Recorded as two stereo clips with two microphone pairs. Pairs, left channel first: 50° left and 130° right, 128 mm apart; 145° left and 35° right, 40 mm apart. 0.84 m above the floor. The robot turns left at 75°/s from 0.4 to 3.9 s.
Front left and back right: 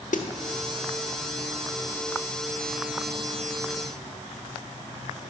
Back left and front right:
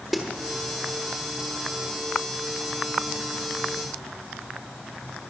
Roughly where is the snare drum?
Ahead left.